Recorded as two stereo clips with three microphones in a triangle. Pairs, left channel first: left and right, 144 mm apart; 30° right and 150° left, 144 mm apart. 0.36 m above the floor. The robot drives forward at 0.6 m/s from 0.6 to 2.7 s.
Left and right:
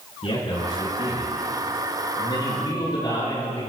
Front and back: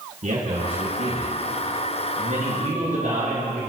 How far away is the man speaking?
About 4.5 m.